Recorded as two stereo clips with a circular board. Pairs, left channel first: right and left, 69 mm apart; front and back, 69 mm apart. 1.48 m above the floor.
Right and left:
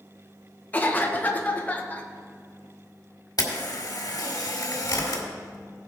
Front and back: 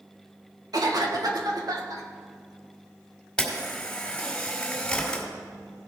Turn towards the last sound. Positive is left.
turn(degrees=-75)